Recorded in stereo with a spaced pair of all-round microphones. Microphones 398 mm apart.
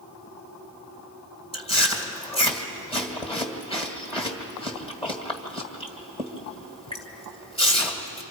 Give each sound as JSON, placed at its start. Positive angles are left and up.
{"t": 1.5, "sound": "chewing", "side_deg": 15, "distance_m": 2.0}